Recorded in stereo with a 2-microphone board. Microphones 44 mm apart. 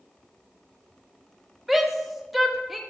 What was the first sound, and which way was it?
A shout, 5° right (ahead or behind).